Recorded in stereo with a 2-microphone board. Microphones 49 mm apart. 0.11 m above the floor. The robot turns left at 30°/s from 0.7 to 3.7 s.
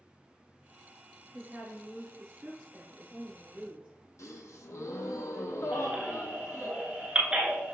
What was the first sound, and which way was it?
A woman speaking, 60° right.